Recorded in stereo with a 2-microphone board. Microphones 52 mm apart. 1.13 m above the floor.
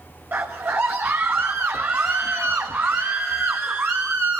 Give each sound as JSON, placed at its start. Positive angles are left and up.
{"t": 0.3, "sound": "a scream", "side_deg": -45, "distance_m": 1.4}